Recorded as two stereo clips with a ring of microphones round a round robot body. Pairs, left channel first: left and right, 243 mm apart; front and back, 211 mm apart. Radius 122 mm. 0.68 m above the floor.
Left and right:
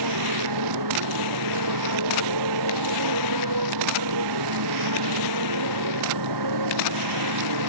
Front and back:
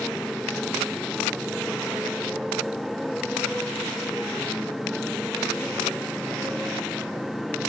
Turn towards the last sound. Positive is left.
turn(degrees=-90)